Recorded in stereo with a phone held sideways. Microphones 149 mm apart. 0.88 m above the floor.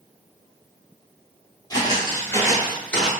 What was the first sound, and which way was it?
Footsteps, 30° left (ahead or behind).